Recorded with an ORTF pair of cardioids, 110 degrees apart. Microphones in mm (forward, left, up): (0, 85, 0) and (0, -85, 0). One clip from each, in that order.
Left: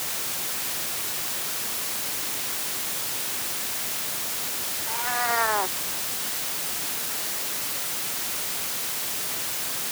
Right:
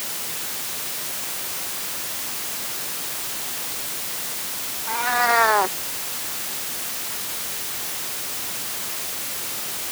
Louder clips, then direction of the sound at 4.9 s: Right 7 dB; 35° right.